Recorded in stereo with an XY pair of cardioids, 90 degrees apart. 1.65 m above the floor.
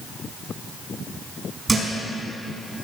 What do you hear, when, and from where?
1.7 s a thud: 35° right, 5 m